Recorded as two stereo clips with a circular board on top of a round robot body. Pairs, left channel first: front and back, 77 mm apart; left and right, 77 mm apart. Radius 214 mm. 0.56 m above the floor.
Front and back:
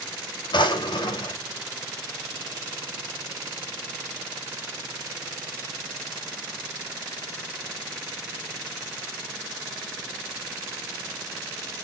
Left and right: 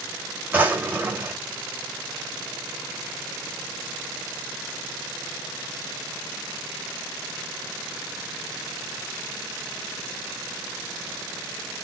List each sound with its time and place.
0.5 s a drawer: 20° right, 2.5 m